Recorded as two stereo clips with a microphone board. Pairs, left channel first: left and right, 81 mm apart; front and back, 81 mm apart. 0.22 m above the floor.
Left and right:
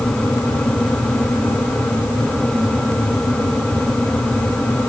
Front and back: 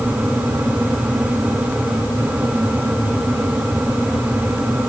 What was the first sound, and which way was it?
Only background noise.